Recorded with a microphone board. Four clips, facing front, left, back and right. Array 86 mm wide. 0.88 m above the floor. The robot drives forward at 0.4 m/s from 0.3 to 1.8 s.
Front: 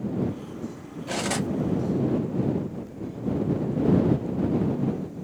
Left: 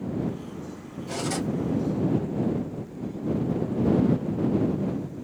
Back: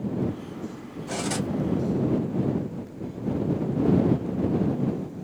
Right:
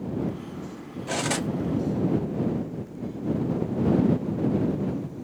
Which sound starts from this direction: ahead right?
Cutlery clinking, at 1.1 s.